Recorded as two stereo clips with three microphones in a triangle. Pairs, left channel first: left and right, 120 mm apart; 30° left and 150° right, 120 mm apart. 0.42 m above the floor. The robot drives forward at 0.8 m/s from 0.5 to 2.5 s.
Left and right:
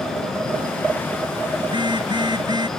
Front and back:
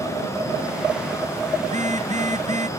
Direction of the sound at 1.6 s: 140° right.